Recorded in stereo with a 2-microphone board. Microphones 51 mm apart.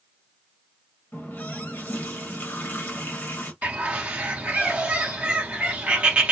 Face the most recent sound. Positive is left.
turn(degrees=-25)  # may be behind; listen again after turning